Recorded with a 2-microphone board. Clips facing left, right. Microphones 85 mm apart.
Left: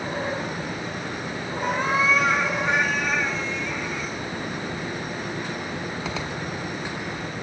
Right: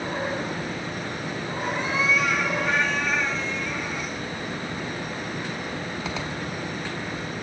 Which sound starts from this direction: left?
A cat meowing, at 1.6 s.